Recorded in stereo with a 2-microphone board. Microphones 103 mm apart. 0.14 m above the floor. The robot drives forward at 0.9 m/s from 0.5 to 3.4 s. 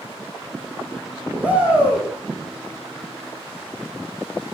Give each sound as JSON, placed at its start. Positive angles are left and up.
{"t": 1.4, "sound": "a shout", "side_deg": -15, "distance_m": 5.0}